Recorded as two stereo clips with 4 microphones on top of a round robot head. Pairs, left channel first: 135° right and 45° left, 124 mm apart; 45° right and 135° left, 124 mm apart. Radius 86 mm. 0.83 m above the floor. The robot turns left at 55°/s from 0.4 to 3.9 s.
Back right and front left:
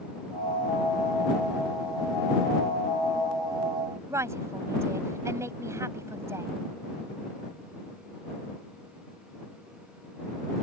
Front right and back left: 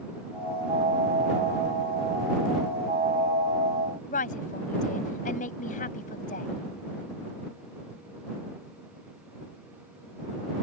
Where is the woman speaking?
25° right.